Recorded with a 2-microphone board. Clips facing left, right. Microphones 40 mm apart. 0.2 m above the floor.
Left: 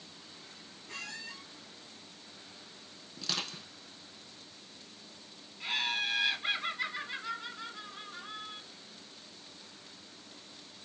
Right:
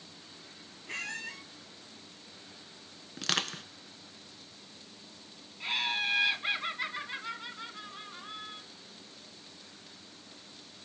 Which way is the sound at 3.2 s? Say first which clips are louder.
Right 5 dB; 70° right (ahead or behind).